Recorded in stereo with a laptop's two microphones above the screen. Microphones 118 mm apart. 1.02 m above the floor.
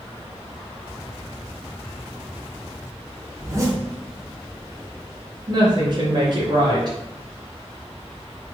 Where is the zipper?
25° right (ahead or behind), 0.6 m.